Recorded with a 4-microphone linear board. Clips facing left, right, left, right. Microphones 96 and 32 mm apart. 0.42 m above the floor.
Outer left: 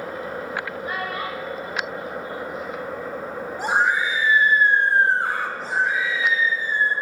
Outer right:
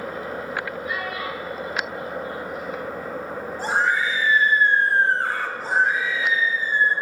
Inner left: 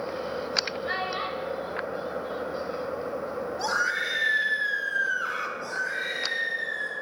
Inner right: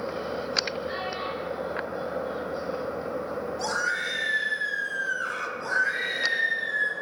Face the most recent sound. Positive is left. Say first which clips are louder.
# outer right 3 dB, inner right 4 dB
turn(degrees=-50)  # may be behind; listen again after turning